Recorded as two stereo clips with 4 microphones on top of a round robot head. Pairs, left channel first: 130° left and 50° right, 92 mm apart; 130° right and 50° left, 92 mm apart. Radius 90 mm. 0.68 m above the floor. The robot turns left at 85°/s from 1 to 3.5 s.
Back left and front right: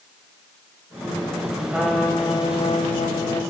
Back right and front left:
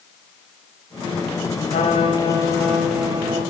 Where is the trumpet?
130° right, 3.5 m; by 3.4 s 85° left, 3.5 m.